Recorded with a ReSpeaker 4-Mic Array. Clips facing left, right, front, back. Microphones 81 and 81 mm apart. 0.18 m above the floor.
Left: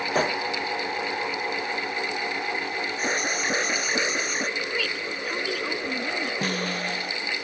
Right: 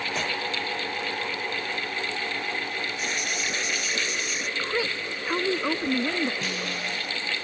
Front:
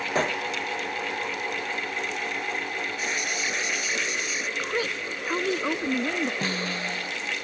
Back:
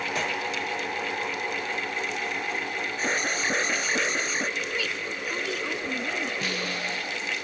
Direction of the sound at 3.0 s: 130° left.